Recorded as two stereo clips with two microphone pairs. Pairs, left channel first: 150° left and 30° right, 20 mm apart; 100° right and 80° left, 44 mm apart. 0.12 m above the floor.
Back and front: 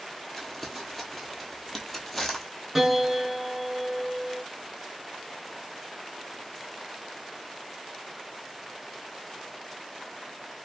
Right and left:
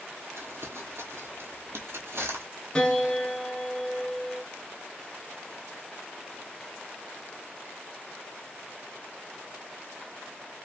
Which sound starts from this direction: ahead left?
Crumpling, at 0.4 s.